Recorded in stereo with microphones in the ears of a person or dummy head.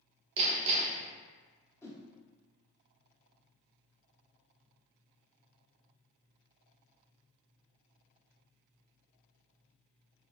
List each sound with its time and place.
0.4 s hammering: 30° right (ahead or behind), 0.7 m
1.8 s a whoosh: 15° left (ahead or behind), 0.6 m